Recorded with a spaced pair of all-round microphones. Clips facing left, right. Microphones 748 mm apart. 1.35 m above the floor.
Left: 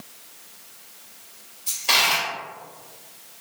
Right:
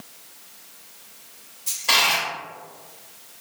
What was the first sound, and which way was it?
A dropped coin, 15° right (ahead or behind).